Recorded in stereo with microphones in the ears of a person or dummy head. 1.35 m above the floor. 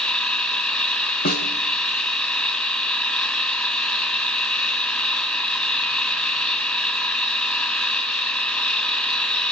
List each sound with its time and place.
0.0 s an engine running: 15° left (ahead or behind), 3 m
1.2 s a snare drum: 50° left (ahead or behind), 1.4 m